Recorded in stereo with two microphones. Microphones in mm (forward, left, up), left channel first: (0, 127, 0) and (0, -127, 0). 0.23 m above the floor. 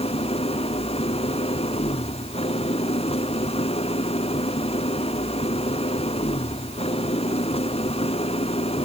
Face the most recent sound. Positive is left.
turn(degrees=25)  # may be behind; listen again after turning